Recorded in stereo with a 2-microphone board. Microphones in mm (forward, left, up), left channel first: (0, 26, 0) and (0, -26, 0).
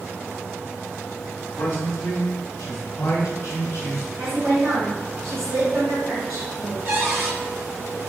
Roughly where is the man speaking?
Left.